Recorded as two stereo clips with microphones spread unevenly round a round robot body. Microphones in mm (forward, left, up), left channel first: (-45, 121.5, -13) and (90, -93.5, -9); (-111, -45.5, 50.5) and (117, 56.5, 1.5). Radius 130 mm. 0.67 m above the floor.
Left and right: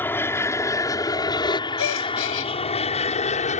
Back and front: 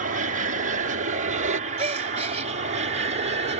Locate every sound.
0.0 s an aircraft: 45° left; by 3.6 s 70° left
1.8 s a gasp: 90° left